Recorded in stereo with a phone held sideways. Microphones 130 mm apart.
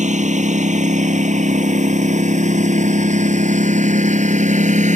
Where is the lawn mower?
70° right (ahead or behind).